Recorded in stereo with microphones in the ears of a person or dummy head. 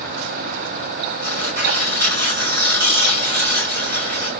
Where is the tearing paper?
55° right (ahead or behind), 6 m.